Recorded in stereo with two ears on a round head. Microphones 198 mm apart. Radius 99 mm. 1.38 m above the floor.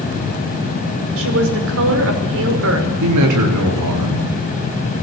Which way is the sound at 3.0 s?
85° right.